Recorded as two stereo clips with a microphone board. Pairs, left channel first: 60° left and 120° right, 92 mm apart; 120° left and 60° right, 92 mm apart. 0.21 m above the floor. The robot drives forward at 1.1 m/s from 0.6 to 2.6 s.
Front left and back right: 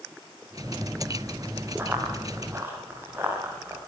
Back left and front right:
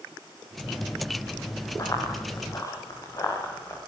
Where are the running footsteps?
170° left, 7.5 m; by 3.8 s 175° left, 11 m.